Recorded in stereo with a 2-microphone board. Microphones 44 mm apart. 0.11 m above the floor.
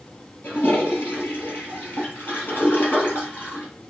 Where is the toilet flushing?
60° left (ahead or behind), 2.5 m.